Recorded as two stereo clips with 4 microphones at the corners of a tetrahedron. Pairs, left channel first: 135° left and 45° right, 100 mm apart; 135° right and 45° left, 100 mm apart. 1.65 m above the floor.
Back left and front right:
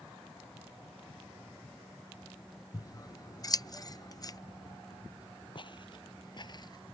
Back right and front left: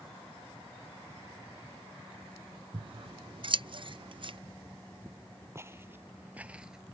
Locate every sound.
2.7 s scissors: 80° left
5.5 s footsteps: 105° left; by 6.8 s 125° left